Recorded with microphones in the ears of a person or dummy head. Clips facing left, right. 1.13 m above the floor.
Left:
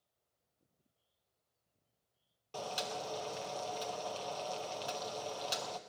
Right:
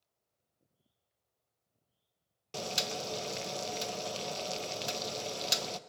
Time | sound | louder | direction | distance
2.5 | boiling | right 2 dB | 30° right (ahead or behind) | 0.6 m